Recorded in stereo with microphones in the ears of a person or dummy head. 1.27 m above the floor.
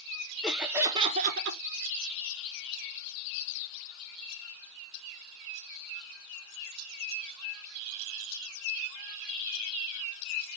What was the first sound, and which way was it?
Laughter, centre (ahead or behind).